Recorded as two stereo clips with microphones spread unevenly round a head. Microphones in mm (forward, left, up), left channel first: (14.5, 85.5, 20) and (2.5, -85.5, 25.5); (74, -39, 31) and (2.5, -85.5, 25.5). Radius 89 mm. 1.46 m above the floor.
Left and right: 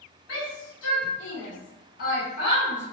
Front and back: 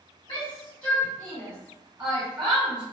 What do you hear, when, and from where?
0.3 s a shout: 90° left, 1.7 m; by 2.8 s 165° left, 1.0 m